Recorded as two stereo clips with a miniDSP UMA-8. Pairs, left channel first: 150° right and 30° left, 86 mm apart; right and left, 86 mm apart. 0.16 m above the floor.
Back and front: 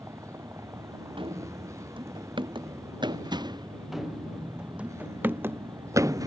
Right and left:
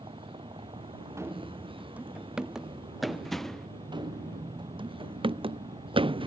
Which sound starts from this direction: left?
A vehicle, at 0.0 s.